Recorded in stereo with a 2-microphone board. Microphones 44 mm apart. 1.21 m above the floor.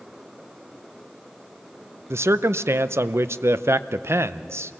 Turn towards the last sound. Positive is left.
turn(degrees=-80)